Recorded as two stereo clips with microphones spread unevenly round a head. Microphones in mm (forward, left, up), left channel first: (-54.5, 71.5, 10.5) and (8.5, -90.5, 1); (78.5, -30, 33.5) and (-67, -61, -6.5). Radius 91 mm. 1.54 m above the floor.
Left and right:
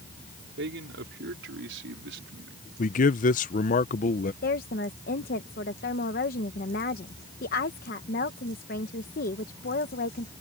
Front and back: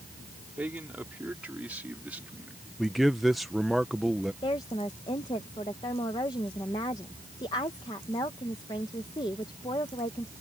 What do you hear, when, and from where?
0.6 s a man speaking: 85° right
2.8 s a man speaking: 90° left
4.4 s a woman speaking: 75° left